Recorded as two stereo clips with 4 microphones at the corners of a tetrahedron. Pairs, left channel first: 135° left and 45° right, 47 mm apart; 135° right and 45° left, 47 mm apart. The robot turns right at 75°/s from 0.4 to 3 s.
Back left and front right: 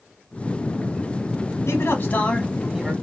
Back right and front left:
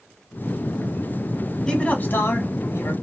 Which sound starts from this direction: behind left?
A man speaking, at 1.7 s.